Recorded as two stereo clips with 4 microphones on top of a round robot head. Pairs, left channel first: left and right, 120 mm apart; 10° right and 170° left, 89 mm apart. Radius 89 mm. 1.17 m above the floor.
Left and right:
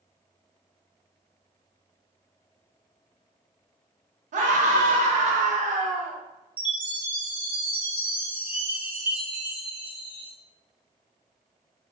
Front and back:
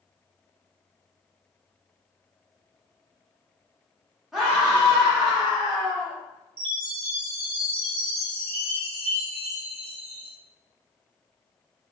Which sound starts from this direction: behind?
A chime, at 6.6 s.